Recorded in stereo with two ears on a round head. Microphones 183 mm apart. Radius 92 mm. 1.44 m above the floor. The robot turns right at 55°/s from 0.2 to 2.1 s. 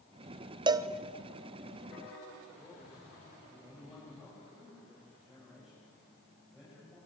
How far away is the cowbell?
About 0.7 m.